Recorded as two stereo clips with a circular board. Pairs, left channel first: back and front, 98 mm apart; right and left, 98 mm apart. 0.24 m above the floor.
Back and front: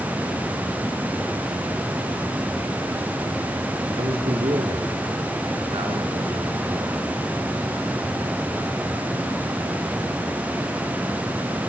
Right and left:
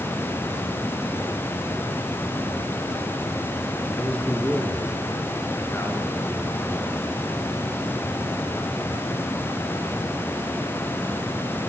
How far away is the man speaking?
About 4.5 m.